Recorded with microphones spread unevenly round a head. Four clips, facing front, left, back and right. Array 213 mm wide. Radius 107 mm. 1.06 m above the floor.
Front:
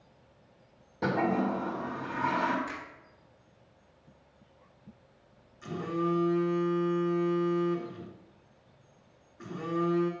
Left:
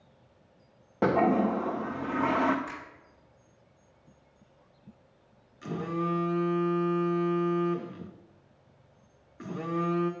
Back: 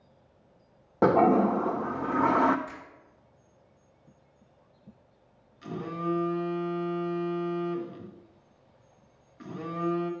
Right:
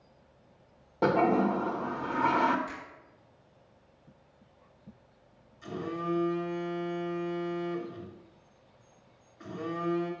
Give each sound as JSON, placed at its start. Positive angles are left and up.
{"t": 1.0, "sound": "a toilet flushing", "azimuth_deg": 170, "distance_m": 0.5}
{"t": 2.7, "sound": "a finger snap", "azimuth_deg": 65, "distance_m": 4.0}
{"t": 5.6, "sound": "a phone buzzing", "azimuth_deg": 95, "distance_m": 1.1}